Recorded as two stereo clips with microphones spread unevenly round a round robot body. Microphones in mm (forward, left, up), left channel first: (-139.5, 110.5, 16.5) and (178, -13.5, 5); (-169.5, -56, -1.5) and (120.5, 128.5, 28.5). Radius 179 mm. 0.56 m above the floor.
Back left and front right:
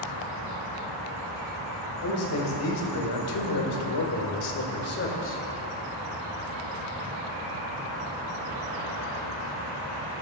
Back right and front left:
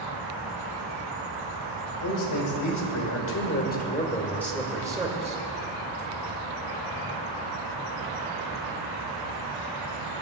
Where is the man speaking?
165° right, 3.5 m; by 5.4 s 105° left, 3 m.